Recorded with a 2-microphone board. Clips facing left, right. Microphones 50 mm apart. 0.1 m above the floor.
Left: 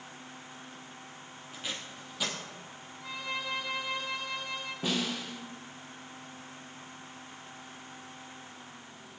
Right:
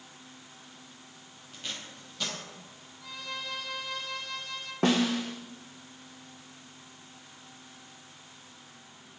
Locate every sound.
1.5 s tape being pulled: 5° left (ahead or behind), 2 m
3.0 s a violin: 20° left (ahead or behind), 1.5 m
4.8 s a snare drum: 70° right (ahead or behind), 1.1 m